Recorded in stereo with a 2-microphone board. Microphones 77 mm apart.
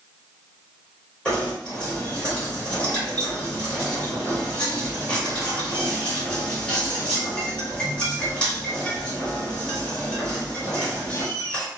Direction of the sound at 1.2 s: 15° left (ahead or behind).